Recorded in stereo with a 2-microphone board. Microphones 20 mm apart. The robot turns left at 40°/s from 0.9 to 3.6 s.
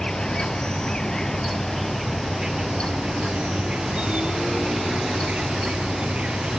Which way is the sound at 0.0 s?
35° left.